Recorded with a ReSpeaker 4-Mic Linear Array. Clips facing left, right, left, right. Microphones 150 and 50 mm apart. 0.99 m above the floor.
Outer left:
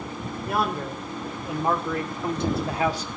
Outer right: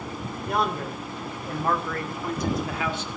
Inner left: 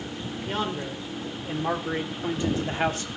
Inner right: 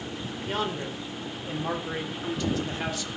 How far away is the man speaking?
About 3 m.